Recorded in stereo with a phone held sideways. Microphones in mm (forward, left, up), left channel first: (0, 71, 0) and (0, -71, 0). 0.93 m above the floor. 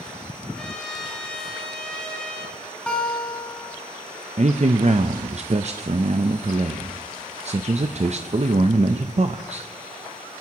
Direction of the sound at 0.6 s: 5° left (ahead or behind).